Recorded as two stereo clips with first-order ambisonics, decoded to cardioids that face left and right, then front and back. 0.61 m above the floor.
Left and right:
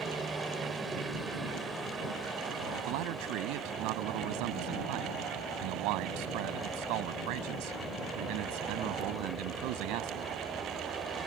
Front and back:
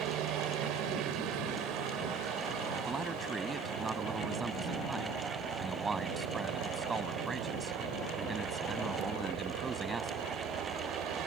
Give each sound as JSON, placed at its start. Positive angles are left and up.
{"t": 0.0, "sound": "a helicopter", "azimuth_deg": -170}
{"t": 2.9, "sound": "a man speaking", "azimuth_deg": -105}